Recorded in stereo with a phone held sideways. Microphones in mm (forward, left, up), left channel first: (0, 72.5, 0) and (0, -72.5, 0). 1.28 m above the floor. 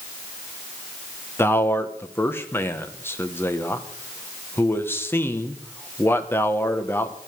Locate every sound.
1.4 s a man speaking: 15° left (ahead or behind), 1.2 m